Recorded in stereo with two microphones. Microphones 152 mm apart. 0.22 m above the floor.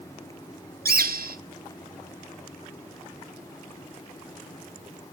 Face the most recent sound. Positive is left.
turn(degrees=-80)